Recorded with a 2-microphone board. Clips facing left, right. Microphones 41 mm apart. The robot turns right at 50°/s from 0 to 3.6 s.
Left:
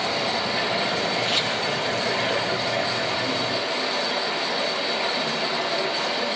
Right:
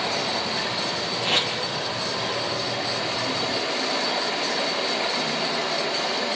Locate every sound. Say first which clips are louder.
0.0 s running water: left 1 dB; 15° right, 7.5 m; by 6.4 s 165° left, 7.5 m
1.2 s tape being pulled: even; 50° right (ahead or behind), 5.5 m; by 1.5 s 40° right (ahead or behind), 5.5 m